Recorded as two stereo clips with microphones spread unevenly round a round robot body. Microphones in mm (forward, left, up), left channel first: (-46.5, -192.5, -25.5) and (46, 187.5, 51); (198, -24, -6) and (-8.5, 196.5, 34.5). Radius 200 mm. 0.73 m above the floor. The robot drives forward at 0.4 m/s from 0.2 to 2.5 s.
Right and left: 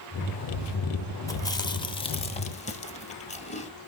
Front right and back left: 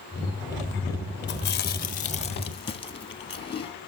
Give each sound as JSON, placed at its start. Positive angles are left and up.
{"t": 1.3, "sound": "chewing", "azimuth_deg": -40, "distance_m": 1.1}